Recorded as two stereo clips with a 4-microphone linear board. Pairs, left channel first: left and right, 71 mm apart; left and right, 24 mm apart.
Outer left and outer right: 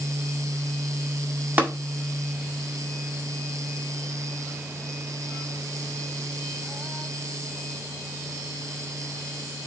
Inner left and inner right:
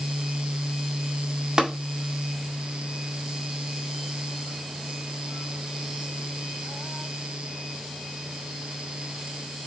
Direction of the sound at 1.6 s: 30° right (ahead or behind).